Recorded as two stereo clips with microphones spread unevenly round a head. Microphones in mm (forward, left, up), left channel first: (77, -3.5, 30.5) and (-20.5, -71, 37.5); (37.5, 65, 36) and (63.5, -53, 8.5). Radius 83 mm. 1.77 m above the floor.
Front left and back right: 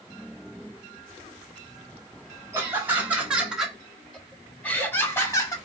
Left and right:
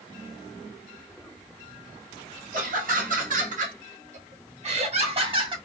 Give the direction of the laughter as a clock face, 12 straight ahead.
2 o'clock.